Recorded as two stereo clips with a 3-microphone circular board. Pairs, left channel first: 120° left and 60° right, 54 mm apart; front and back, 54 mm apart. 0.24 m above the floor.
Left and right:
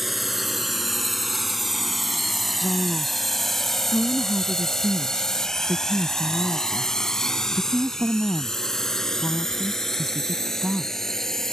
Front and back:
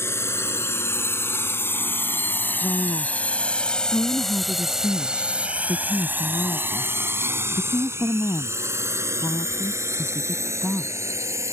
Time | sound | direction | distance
0.0 | a drone | 30° left | ?
2.6 | a woman speaking | 20° left | ?